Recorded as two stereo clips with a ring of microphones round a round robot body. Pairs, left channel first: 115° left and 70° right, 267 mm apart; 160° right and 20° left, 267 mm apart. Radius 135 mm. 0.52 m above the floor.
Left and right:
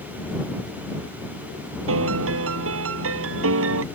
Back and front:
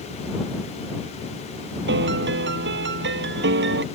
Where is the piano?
25° right.